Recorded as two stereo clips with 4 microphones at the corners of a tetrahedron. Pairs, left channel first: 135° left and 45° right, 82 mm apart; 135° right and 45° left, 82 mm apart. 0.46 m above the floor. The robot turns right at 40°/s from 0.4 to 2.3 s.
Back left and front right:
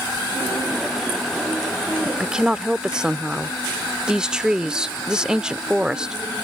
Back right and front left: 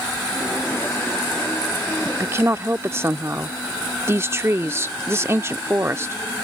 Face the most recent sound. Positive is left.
turn(degrees=25)